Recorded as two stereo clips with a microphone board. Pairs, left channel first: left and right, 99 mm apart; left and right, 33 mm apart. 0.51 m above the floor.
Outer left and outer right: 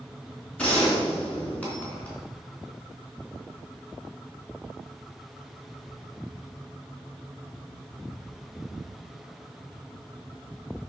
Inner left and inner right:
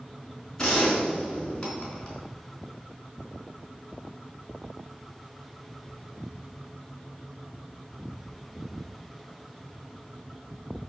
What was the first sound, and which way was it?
A gunshot, 10° left (ahead or behind).